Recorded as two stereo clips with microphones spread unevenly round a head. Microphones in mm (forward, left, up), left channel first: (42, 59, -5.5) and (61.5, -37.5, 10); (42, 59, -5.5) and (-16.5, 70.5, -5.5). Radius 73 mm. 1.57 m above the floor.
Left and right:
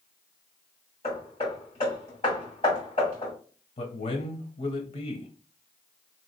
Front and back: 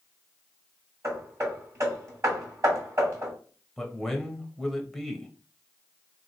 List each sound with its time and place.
1.0 s hammering: 145° left, 2.5 m
3.8 s a man speaking: 80° left, 0.8 m